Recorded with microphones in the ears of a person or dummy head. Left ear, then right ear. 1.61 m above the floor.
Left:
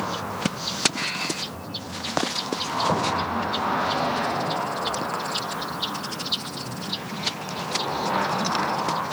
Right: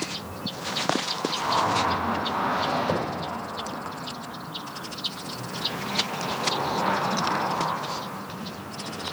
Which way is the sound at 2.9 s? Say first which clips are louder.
Left 4 dB; 15° right (ahead or behind).